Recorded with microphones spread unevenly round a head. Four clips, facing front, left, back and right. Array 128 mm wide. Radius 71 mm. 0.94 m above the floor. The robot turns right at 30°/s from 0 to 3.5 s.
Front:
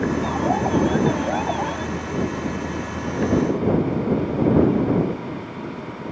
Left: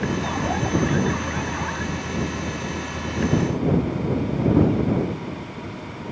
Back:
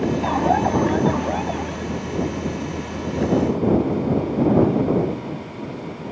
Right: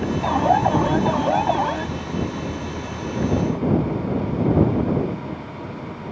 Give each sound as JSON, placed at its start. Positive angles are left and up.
{"t": 0.2, "sound": "an alarm", "azimuth_deg": -135}